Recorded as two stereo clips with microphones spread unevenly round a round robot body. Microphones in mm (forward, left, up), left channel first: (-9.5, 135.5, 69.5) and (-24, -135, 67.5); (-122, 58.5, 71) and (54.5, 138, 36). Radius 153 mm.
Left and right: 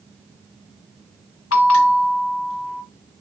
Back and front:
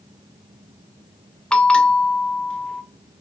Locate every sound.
1.5 s a bell: 115° left, 0.7 m